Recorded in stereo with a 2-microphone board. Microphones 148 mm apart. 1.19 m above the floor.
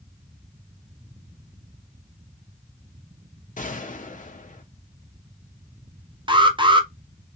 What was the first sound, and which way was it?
A gunshot, 60° left (ahead or behind).